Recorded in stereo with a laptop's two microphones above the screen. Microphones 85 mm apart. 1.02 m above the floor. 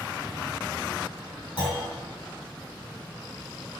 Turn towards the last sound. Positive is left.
turn(degrees=65)  # may be behind; listen again after turning